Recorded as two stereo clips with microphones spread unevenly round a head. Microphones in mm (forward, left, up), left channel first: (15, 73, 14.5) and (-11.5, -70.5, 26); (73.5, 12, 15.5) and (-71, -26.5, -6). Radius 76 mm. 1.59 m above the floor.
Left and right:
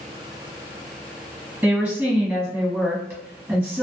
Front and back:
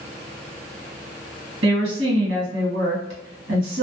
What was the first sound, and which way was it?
A woman speaking, 175° right.